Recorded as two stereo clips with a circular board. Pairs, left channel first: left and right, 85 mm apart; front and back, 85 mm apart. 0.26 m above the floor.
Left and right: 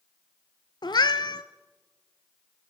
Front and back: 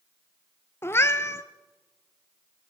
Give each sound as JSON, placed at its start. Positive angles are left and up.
{"t": 0.8, "sound": "a cat meowing", "azimuth_deg": 60, "distance_m": 0.6}